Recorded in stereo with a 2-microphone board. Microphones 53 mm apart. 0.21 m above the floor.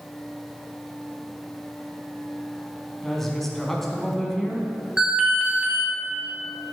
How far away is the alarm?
About 2.0 m.